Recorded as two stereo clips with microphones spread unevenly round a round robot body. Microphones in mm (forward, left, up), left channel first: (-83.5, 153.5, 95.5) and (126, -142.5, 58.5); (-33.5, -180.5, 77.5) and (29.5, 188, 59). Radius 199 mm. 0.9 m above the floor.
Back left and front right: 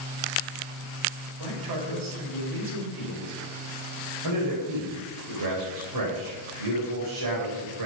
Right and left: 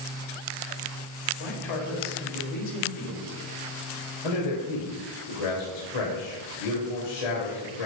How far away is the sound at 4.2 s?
About 3.5 m.